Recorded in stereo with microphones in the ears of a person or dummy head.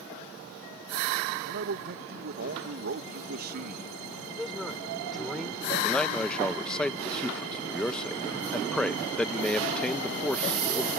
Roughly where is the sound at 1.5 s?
Right.